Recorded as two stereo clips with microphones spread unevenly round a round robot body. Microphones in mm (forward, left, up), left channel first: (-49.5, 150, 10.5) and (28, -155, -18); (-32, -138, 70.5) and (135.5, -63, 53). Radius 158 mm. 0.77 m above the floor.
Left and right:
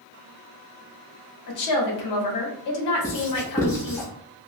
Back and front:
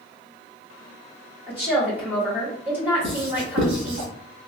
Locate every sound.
1.5 s a woman speaking: 95° left, 1.1 m
3.0 s writing: 25° left, 1.4 m